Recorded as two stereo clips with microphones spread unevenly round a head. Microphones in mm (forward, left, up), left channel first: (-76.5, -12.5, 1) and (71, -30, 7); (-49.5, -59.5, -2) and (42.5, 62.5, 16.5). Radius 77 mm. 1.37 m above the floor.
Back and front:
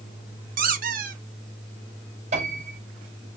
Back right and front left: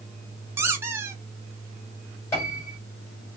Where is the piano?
50° right, 4 m.